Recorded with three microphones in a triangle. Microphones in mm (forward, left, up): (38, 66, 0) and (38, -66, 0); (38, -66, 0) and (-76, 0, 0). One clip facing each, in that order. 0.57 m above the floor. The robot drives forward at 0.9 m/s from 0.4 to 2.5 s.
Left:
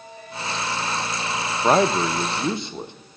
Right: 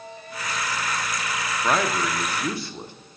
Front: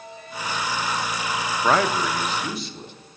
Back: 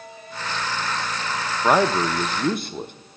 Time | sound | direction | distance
1.6 | a man speaking | 75° left | 0.7 m